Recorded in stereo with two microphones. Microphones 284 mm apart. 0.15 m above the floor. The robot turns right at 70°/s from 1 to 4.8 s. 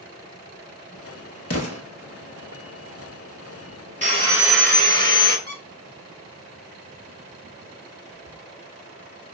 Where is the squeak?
30° left (ahead or behind), 1.0 m.